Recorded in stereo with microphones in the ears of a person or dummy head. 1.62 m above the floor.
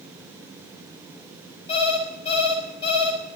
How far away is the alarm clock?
About 6 m.